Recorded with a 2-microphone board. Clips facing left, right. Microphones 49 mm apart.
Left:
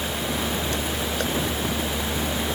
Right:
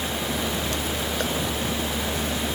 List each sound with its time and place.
Only background noise.